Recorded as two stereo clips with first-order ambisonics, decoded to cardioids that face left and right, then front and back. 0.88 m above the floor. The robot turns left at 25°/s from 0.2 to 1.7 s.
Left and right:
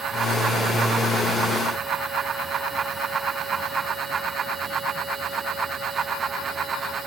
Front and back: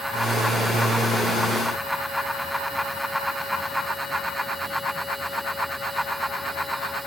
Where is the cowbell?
I don't hear a cowbell.